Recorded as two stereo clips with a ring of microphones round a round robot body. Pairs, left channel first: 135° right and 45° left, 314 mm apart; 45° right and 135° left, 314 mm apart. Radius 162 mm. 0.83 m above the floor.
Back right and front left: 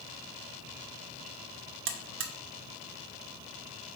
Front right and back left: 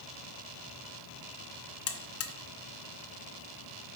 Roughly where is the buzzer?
Ahead.